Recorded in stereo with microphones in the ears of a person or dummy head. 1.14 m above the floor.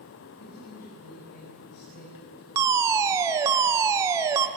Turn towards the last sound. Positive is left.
turn(degrees=-20)  # may be behind; listen again after turning